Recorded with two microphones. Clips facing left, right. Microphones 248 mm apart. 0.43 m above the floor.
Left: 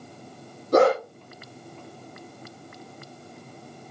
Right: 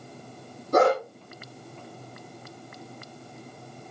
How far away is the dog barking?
About 7.5 m.